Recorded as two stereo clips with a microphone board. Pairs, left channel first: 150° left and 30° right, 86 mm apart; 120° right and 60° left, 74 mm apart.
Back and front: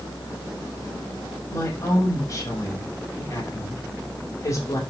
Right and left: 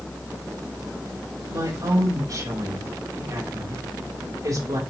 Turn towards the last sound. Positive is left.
turn(degrees=100)